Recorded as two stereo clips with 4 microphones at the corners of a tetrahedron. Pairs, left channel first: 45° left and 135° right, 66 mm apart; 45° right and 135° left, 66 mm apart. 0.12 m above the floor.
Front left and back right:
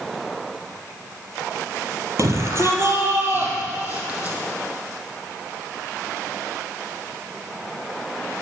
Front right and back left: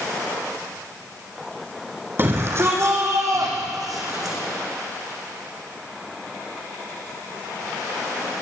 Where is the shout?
175° right, 3.5 m; by 4.4 s 155° left, 5 m.